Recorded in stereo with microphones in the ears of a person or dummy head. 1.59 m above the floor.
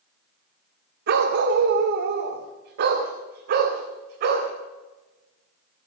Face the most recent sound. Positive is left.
turn(degrees=-55)  # may be behind; listen again after turning